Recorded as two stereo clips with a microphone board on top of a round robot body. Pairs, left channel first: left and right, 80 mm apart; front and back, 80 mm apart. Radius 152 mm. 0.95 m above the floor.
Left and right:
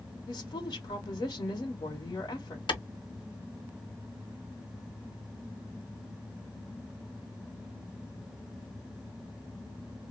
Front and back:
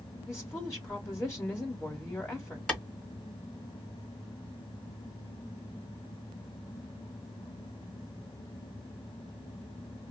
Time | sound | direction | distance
0.3 | a woman speaking | 60° left | 1.3 m
2.7 | a clap | 75° left | 1.4 m